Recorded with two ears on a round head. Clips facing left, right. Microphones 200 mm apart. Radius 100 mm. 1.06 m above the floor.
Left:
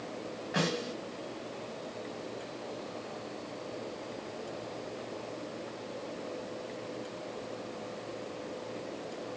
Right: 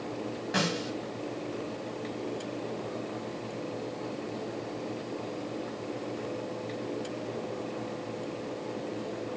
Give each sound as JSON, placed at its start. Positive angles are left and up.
{"t": 0.5, "sound": "a snare drum", "side_deg": -65, "distance_m": 5.0}